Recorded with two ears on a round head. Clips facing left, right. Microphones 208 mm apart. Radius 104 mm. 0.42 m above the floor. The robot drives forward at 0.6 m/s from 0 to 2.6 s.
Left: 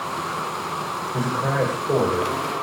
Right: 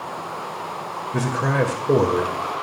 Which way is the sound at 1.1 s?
45° right (ahead or behind).